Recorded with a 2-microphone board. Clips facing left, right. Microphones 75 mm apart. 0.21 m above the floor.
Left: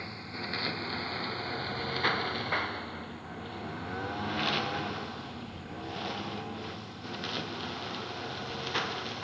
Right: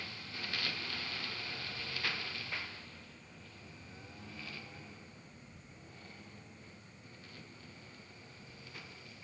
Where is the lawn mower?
30° left (ahead or behind); by 9.2 s 75° left (ahead or behind).